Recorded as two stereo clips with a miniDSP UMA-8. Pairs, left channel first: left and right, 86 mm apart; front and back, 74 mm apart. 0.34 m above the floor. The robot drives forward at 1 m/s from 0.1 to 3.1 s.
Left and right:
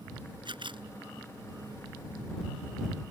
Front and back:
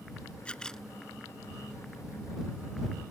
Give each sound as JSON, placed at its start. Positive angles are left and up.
{"t": 0.5, "sound": "a camera shutter", "azimuth_deg": -75}